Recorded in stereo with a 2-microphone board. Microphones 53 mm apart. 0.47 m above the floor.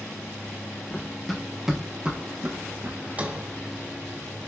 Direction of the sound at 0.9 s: 15° left (ahead or behind).